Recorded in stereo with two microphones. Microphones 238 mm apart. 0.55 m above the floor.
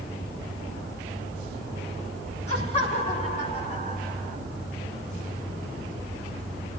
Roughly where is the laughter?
Left.